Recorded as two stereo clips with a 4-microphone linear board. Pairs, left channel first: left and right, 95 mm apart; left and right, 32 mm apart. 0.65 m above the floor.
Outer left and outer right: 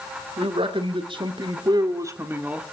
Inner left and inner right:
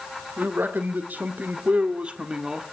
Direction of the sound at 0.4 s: 70° right (ahead or behind).